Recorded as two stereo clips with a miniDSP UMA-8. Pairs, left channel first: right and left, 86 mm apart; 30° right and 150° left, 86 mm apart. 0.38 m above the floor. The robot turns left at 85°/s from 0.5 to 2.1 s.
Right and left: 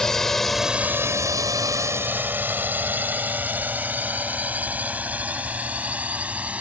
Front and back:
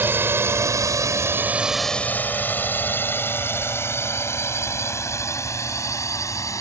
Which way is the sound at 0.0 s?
170° right.